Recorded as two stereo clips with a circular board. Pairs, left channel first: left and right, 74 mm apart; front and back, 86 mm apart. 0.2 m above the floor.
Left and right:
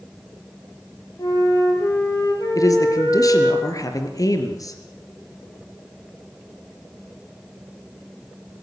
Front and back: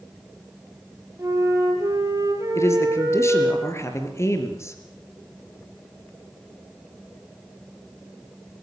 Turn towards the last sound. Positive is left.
turn(degrees=55)